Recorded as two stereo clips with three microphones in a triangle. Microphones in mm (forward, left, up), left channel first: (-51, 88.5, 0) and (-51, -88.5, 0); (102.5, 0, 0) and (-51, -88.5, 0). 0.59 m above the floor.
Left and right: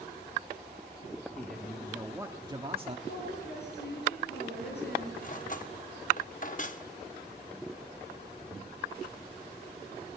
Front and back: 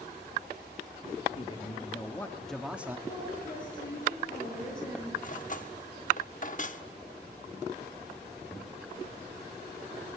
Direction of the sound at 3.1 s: 70° left.